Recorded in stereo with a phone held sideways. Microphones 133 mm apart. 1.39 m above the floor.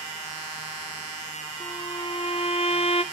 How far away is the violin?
About 0.8 m.